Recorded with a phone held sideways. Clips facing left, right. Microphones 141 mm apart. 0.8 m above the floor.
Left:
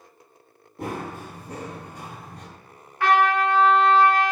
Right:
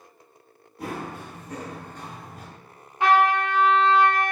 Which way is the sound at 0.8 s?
55° left (ahead or behind).